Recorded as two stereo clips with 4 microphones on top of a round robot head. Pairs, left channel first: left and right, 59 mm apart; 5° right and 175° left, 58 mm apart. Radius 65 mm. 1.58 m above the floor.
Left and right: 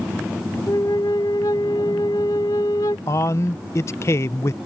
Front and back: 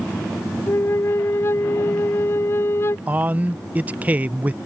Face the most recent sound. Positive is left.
turn(degrees=120)